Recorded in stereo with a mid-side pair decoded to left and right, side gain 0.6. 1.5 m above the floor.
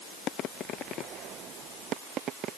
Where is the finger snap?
I don't hear a finger snap.